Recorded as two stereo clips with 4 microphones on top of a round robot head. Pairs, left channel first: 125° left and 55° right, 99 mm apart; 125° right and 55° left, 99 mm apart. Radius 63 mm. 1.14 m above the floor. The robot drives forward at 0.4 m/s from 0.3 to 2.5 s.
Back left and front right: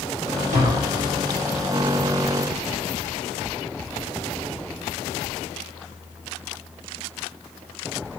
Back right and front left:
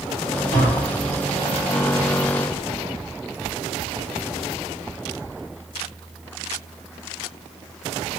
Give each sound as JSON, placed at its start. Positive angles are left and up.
{"t": 0.5, "sound": "tapping", "azimuth_deg": -70, "distance_m": 2.5}